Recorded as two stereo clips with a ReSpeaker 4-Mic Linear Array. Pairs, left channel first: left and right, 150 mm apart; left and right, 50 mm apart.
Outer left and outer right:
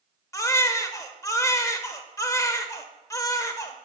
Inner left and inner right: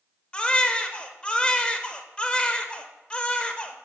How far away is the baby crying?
About 0.6 m.